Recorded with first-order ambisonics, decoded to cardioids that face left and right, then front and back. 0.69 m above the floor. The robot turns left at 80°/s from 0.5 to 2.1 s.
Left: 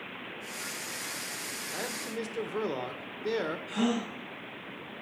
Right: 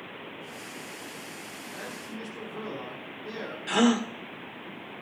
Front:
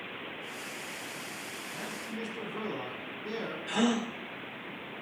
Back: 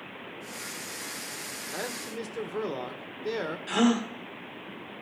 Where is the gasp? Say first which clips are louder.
Right 7 dB, back 4 dB; 110° right, 1.3 m.